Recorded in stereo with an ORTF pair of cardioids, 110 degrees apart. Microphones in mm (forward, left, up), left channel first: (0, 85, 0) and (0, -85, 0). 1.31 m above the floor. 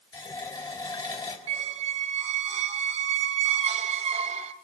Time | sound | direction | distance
0.1 | a running tap | 25° left | 4 m
1.5 | a squeak | 40° right | 1.3 m